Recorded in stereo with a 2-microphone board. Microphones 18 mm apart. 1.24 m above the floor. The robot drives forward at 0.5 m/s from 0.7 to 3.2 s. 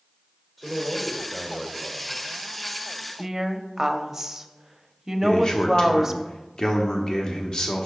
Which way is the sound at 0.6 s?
15° left (ahead or behind).